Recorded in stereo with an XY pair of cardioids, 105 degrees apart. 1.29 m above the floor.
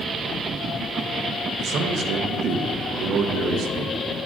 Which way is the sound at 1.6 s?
65° right.